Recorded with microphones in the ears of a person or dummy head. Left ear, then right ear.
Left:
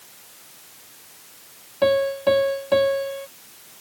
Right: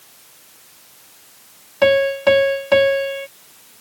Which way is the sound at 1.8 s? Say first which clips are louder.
Right 5 dB; 65° right (ahead or behind).